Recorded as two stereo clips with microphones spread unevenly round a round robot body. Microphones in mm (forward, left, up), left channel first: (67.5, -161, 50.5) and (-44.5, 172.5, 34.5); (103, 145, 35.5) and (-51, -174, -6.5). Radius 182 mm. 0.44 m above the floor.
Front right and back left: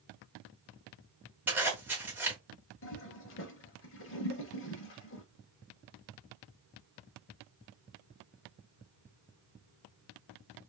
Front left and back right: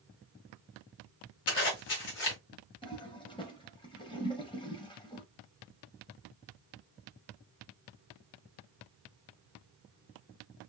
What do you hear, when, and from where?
1.5 s a zipper: 25° left, 1.6 m
2.8 s a toilet flushing: 15° right, 0.7 m